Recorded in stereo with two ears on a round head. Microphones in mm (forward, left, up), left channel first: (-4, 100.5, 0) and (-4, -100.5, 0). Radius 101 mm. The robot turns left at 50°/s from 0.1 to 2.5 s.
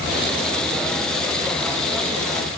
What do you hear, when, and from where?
Only background noise.